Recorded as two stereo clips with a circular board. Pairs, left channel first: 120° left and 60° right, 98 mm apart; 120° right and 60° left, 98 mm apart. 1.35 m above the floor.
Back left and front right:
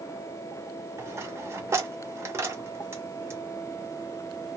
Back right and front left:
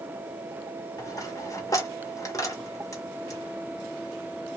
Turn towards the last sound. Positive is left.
turn(degrees=-100)